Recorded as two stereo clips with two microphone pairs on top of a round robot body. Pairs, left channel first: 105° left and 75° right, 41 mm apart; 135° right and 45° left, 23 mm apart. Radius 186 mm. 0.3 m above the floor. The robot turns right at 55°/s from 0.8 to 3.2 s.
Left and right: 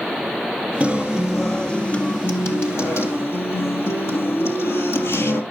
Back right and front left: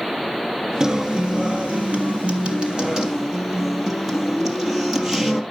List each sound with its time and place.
0.8 s a guitar: 10° right, 2.5 m; by 5.4 s 120° left, 2.5 m